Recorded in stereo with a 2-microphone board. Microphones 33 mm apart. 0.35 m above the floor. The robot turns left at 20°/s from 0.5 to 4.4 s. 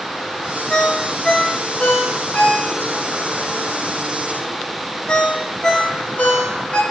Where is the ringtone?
30° left (ahead or behind), 0.8 m; by 6.8 s 45° left (ahead or behind), 0.8 m.